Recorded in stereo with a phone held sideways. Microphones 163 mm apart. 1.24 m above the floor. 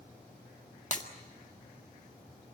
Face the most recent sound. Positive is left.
turn(degrees=50)  # may be behind; listen again after turning